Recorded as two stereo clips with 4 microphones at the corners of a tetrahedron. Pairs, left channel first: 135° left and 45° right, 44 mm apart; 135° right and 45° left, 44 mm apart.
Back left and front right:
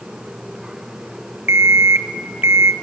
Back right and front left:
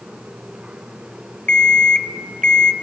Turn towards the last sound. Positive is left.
turn(degrees=-70)